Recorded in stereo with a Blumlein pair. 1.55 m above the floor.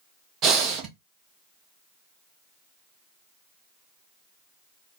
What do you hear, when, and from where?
0.4 s breathing: 30° right, 1.0 m